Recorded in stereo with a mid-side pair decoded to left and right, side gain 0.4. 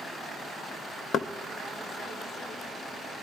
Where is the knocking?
65° left, 0.7 m.